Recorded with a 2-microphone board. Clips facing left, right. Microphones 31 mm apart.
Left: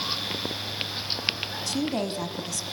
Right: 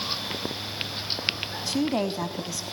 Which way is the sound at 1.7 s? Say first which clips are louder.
Right 3 dB; 15° right (ahead or behind).